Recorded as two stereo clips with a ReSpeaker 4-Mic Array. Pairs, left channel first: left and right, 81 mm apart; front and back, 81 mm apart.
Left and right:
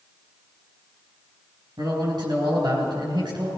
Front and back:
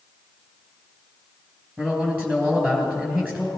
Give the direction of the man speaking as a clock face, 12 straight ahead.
4 o'clock.